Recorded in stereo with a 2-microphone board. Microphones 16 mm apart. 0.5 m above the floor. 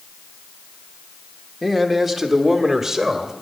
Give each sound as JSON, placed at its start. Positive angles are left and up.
{"t": 1.6, "sound": "a man speaking", "side_deg": 15, "distance_m": 1.4}